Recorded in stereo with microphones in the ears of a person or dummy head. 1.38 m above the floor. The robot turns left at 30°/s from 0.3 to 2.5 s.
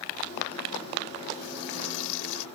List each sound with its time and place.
1.4 s frying: 130° left; by 2.5 s 95° left